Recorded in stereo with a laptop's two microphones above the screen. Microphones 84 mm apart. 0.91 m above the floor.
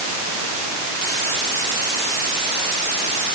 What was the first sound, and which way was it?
Only background noise.